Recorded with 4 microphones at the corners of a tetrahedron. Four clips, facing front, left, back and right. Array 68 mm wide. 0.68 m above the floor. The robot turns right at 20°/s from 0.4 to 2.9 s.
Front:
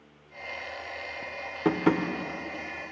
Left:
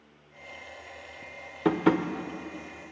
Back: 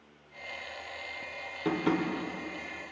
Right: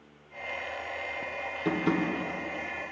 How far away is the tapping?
About 0.6 m.